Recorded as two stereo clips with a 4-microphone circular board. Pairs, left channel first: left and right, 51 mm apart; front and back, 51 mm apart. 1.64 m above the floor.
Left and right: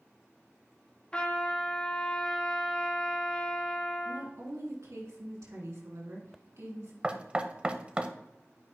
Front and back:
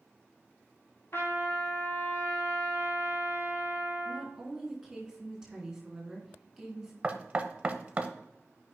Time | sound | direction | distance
1.1 | a trumpet | 25° left | 1.7 m
4.0 | a woman speaking | 95° right | 3.5 m
7.0 | knocking | 140° right | 0.8 m